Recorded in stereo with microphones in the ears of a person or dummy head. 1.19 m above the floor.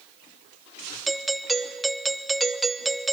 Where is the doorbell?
5° right (ahead or behind), 0.6 m.